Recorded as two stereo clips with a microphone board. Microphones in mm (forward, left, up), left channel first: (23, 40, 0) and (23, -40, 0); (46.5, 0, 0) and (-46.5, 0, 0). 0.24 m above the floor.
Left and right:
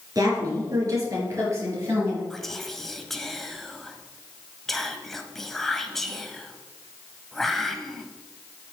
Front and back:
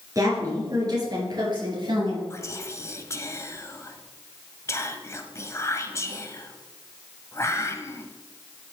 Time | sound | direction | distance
0.1 | a woman speaking | 125° right | 4 m
2.3 | whispering | 5° left | 1.1 m